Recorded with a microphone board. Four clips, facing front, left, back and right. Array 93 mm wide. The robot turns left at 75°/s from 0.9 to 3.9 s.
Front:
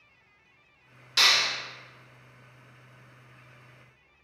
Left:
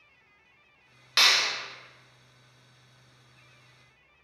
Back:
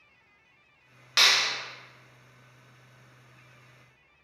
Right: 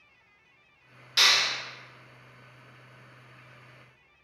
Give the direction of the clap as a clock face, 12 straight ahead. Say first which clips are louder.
Left 1 dB, even; 7 o'clock.